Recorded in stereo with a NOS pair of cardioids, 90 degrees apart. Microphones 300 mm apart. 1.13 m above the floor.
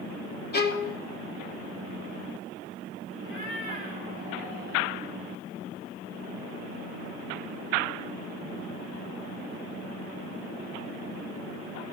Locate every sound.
0.5 s a violin: 35° left, 1.3 m
3.2 s a cat meowing: 45° left, 3.5 m